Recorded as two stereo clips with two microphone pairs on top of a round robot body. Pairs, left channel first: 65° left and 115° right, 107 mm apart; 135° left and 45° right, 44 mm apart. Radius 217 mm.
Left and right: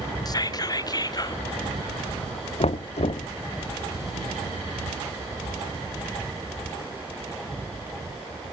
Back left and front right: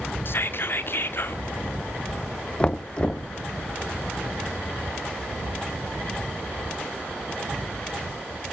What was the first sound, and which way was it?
Whispering, 110° left.